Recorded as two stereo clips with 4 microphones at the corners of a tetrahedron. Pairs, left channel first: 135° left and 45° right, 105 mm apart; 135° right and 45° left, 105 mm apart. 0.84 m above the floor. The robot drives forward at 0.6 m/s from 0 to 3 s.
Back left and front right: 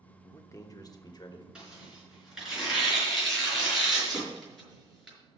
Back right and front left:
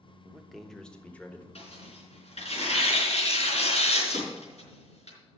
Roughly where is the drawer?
Behind right.